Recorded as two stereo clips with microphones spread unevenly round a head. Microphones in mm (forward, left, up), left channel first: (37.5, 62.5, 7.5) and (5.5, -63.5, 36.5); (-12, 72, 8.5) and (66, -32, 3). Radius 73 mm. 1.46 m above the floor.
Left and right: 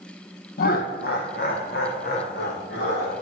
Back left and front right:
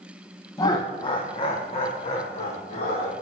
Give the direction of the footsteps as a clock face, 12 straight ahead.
I don't hear footsteps.